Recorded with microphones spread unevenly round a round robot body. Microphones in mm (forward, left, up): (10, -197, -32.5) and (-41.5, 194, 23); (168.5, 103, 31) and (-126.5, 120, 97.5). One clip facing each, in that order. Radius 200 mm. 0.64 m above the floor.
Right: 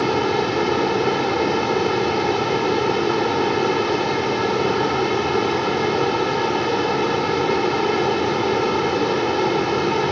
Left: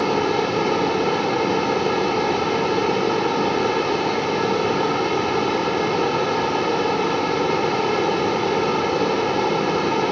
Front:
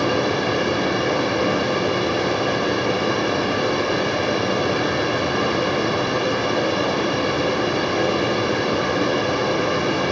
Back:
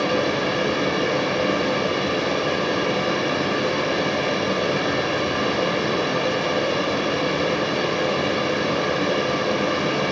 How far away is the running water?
About 1.9 m.